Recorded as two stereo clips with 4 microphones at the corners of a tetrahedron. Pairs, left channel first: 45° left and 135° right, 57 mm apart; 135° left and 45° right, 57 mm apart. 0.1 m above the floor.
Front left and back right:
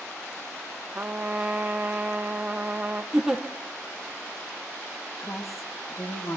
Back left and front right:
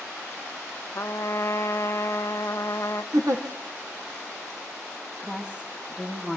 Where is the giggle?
55° right, 2 m.